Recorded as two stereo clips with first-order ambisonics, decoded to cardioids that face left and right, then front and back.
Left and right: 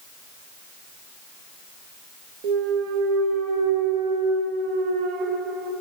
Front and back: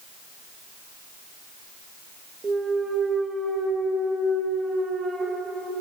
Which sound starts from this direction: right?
A clunk, at 2.4 s.